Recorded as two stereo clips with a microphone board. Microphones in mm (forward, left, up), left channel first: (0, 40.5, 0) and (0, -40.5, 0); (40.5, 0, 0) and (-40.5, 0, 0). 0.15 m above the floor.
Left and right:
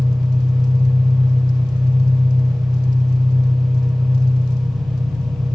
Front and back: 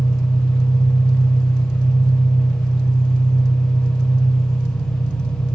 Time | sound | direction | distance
0.0 | an engine running | 60° right | 8 m